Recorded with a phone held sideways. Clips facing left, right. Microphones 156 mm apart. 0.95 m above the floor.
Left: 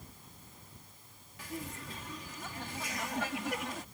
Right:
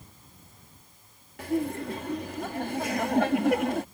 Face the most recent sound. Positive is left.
turn(degrees=-65)  # may be behind; listen again after turning